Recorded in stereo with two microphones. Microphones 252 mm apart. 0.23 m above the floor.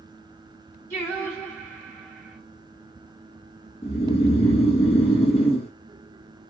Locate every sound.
0.9 s singing: 10° left (ahead or behind), 2.5 m
3.8 s snoring: 25° left (ahead or behind), 1.3 m